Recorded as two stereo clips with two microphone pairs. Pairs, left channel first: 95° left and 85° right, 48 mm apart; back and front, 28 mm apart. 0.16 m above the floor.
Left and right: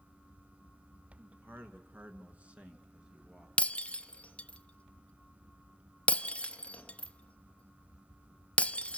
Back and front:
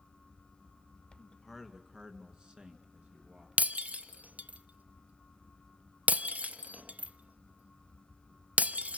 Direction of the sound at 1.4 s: 90° right.